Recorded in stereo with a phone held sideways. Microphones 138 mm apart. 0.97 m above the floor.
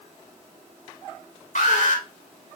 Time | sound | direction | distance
1.6 | an alarm | 65° left (ahead or behind) | 3 m